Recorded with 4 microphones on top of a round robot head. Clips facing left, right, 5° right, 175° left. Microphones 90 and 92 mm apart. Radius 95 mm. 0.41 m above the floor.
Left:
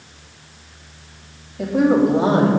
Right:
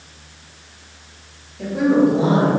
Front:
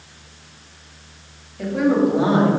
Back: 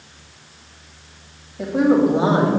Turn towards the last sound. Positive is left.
turn(degrees=110)